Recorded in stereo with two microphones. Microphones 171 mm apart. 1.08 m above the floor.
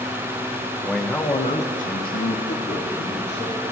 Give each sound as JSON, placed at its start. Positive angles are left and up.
{"t": 0.8, "sound": "a man speaking", "side_deg": -5, "distance_m": 1.2}